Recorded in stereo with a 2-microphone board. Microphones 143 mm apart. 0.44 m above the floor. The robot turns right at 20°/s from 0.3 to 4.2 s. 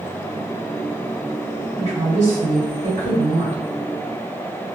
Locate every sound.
1.8 s a woman speaking: 120° right, 1.7 m; by 3.6 s 85° right, 1.7 m